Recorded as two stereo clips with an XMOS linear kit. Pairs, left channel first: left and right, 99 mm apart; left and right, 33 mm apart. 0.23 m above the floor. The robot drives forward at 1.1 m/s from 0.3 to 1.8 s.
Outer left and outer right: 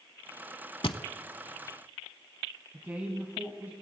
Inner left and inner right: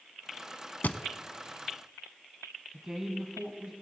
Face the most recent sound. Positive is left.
turn(degrees=-20)  # may be behind; listen again after turning